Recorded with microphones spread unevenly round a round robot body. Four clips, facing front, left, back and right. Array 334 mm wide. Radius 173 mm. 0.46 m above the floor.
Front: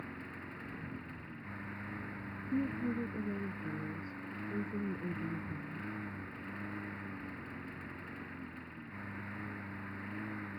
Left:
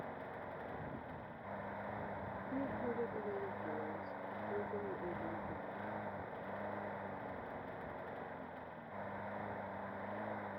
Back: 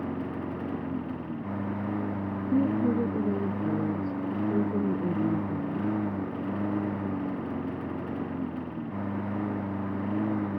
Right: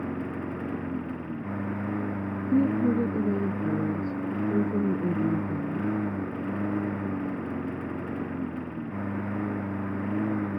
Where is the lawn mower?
135° right.